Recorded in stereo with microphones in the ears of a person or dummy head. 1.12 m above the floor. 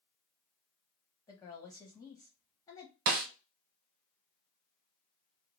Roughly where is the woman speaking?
Centre.